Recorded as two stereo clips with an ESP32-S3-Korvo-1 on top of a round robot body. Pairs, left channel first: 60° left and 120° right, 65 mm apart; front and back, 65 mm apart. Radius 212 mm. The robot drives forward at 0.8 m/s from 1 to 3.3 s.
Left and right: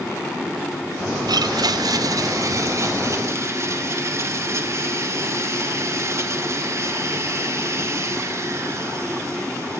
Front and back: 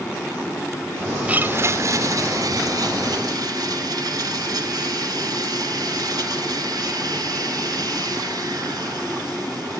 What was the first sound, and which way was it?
A blender, 110° right.